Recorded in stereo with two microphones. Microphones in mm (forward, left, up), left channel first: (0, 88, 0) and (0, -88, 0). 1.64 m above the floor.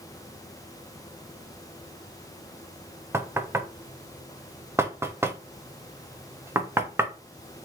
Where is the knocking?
15° right (ahead or behind), 0.5 m.